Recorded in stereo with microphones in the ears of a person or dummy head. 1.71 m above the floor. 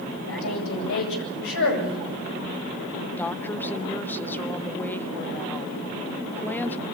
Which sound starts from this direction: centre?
A woman speaking, at 3.2 s.